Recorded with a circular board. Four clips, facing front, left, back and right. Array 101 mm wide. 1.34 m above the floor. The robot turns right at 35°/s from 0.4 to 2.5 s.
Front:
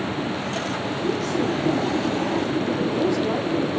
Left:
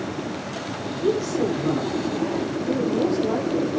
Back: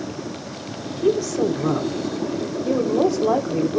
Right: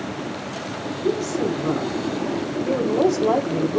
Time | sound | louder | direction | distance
0.9 | a woman speaking | left 1 dB, back 6 dB | 160° left | 3.5 m